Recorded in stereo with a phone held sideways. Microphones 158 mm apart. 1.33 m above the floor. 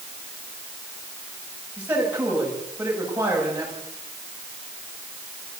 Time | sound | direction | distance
1.8 | a man speaking | 10° right (ahead or behind) | 10 m